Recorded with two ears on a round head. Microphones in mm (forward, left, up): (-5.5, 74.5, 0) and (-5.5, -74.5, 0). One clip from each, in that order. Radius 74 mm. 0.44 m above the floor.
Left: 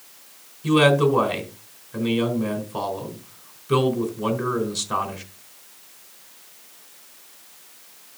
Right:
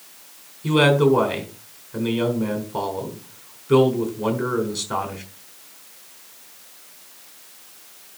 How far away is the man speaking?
About 3.5 m.